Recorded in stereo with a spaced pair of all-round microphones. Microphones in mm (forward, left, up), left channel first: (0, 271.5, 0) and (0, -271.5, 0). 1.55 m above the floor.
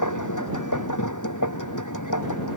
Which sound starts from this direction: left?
A machine running, at 0.0 s.